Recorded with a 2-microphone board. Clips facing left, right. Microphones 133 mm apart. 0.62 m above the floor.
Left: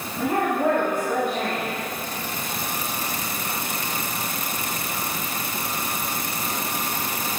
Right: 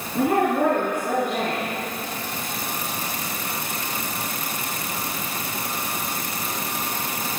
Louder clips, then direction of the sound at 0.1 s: Right 3 dB; 65° right (ahead or behind).